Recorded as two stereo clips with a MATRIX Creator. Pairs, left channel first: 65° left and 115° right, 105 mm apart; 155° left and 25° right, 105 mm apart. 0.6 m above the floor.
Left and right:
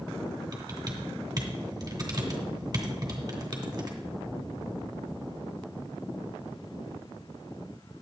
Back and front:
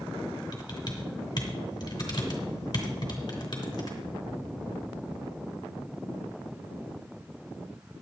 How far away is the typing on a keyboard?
About 2.5 m.